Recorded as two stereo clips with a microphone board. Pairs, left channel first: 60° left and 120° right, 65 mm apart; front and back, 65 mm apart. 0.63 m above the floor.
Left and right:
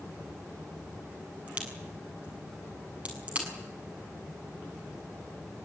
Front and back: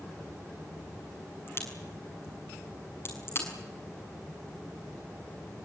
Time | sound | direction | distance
1.5 | a crack | 50° right | 7 m